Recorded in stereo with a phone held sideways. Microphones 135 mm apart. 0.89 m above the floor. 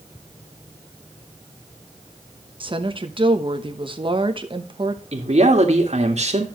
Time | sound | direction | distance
2.6 | a woman speaking | 40° right (ahead or behind) | 1.0 m
5.1 | a man speaking | 55° right (ahead or behind) | 2.0 m